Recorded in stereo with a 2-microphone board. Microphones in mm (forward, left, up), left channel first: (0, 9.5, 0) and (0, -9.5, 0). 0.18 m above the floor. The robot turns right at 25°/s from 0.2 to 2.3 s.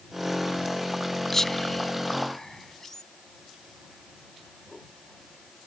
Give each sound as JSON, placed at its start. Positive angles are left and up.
{"t": 1.3, "sound": "whispering", "side_deg": 20}